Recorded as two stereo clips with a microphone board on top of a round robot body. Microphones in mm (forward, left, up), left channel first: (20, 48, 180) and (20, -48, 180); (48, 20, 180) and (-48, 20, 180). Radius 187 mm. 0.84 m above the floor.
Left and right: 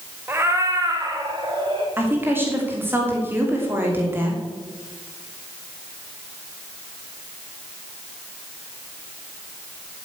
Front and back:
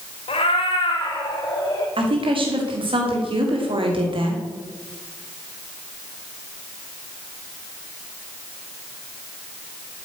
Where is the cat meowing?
20° right, 1.6 m; by 1.9 s 50° right, 3 m.